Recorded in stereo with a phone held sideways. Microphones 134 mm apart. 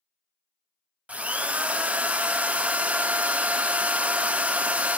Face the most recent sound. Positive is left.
turn(degrees=-10)  # may be behind; listen again after turning